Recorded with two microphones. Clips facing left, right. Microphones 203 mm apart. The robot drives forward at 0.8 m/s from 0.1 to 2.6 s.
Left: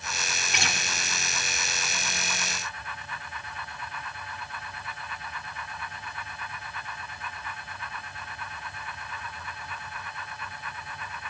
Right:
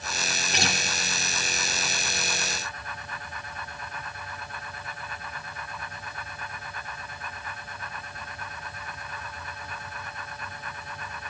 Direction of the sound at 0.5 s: 35° right (ahead or behind).